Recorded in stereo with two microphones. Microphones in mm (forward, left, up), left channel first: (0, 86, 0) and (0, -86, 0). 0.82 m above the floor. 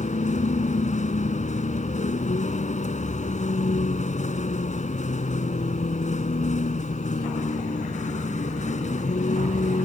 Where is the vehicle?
45° left (ahead or behind).